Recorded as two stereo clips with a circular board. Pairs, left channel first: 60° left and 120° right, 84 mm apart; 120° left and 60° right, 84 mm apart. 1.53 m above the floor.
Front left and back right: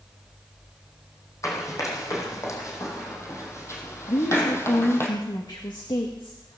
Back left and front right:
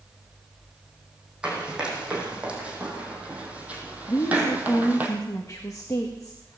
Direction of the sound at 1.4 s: 15° left.